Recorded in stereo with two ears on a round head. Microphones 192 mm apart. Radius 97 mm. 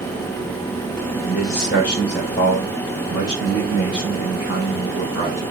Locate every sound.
1.2 s a man speaking: 55° left (ahead or behind), 2.5 m; by 5.4 s 35° left (ahead or behind), 6 m